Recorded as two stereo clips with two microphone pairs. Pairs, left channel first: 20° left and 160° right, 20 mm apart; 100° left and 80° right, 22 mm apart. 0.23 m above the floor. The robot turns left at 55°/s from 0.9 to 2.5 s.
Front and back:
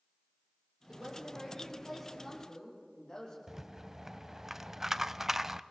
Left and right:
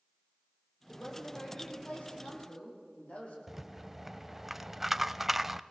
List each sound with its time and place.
0.9 s a woman speaking: 165° left, 8.5 m; by 3.4 s 80° left, 8.5 m
3.5 s a rattle: 130° right, 0.5 m